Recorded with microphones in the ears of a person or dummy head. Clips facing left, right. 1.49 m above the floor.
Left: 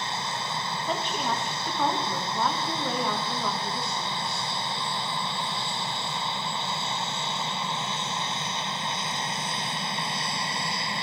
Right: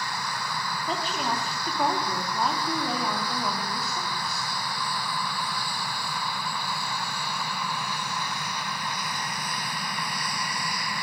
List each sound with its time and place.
0.9 s a woman speaking: centre (ahead or behind), 2.5 m